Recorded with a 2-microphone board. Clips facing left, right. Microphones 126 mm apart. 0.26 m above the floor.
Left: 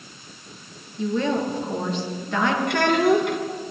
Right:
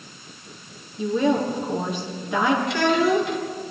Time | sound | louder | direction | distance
1.0 | a woman speaking | right 2 dB | 10° right (ahead or behind) | 5 m
2.7 | a child speaking | left 1 dB | 60° left (ahead or behind) | 3 m